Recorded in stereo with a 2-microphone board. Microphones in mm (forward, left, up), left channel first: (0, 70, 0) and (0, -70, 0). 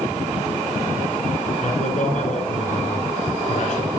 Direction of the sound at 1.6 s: 65° left (ahead or behind).